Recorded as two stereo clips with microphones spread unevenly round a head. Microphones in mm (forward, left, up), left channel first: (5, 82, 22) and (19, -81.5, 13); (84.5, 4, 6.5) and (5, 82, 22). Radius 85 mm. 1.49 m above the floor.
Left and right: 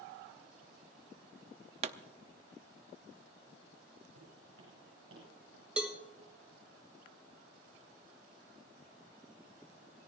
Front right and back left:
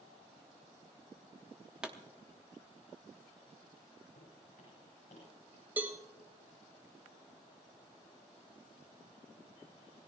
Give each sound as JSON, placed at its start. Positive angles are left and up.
{"t": 1.8, "sound": "a pop", "azimuth_deg": -135, "distance_m": 0.6}
{"t": 4.2, "sound": "footsteps", "azimuth_deg": -85, "distance_m": 8.5}
{"t": 5.8, "sound": "a cowbell", "azimuth_deg": -170, "distance_m": 0.7}